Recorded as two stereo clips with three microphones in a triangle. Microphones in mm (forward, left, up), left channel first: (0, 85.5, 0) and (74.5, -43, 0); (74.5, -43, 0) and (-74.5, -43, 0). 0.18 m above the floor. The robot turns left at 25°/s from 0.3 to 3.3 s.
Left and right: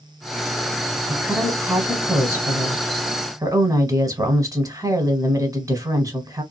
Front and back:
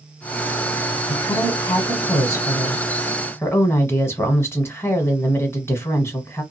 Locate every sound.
1.1 s a woman speaking: 10° left, 1.1 m; by 6.4 s 45° right, 1.1 m